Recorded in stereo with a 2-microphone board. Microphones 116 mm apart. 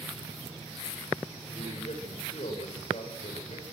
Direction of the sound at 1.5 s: 70° left (ahead or behind).